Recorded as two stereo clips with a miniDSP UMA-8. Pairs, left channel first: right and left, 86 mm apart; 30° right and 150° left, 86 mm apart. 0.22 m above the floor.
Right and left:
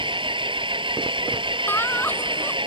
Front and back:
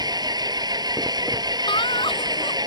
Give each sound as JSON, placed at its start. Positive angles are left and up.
{"t": 0.0, "sound": "an engine running", "azimuth_deg": 110}
{"t": 1.7, "sound": "laughter", "azimuth_deg": -20}